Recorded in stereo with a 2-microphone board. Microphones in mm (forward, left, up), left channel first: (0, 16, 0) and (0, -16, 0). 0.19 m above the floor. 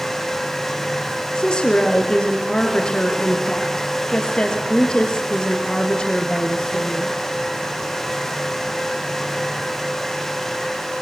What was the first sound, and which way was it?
A woman speaking, 25° left (ahead or behind).